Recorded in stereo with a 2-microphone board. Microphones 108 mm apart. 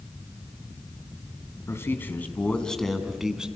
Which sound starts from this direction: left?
A man speaking, at 1.7 s.